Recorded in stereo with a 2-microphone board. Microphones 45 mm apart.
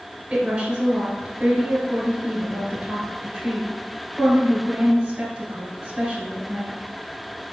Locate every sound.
0.3 s a woman speaking: 10° right (ahead or behind), 1.4 m